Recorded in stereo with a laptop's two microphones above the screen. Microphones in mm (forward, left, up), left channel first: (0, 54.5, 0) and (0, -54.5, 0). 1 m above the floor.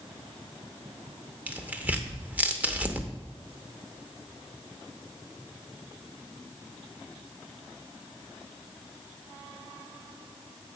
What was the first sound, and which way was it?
Tearing paper, 15° right (ahead or behind).